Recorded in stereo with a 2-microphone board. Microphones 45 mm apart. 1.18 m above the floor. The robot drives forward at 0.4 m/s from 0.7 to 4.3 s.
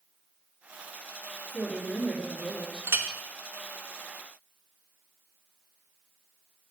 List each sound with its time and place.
1.5 s a woman speaking: 5° left (ahead or behind), 3 m
2.9 s a clink: 60° right (ahead or behind), 0.7 m